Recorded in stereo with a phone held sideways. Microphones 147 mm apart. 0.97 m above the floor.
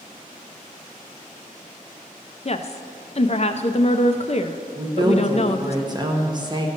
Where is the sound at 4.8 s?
30° right (ahead or behind), 1.1 m.